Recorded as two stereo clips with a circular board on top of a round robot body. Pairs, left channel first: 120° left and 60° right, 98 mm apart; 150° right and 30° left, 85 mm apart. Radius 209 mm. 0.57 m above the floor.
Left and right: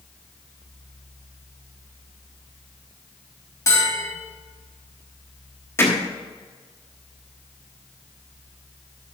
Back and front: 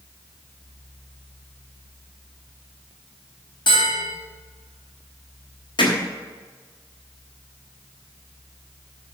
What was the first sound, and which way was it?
A bell, straight behind.